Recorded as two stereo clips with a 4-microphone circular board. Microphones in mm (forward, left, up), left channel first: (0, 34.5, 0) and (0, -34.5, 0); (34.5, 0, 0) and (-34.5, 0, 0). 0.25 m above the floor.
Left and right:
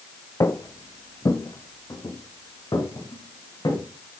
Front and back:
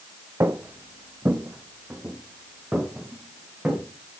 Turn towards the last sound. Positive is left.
turn(degrees=105)